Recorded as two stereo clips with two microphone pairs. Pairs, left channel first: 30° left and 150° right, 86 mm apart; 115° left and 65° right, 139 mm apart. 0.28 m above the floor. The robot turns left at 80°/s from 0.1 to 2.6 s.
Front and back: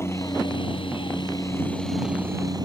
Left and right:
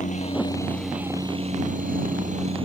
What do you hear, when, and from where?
0.0 s a helicopter: 85° left; by 2.7 s 115° right